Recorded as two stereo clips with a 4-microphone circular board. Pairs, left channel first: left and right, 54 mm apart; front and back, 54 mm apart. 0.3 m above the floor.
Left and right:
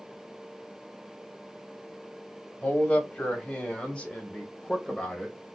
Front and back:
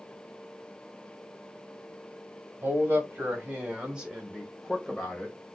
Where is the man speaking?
145° left, 1.8 m; by 5.5 s 15° left, 1.3 m.